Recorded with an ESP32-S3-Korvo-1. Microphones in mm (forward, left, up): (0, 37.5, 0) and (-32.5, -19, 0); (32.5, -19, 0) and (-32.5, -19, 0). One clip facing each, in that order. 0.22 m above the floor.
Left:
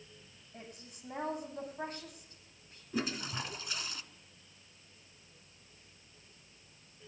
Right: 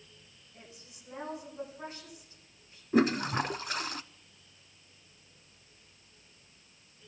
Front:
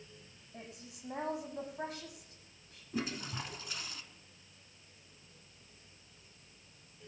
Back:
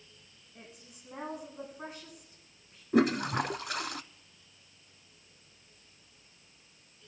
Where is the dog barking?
I don't hear a dog barking.